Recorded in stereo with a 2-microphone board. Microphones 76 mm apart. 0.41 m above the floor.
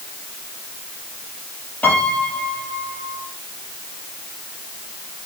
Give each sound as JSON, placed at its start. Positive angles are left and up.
{"t": 1.8, "sound": "a piano", "side_deg": 20, "distance_m": 7.5}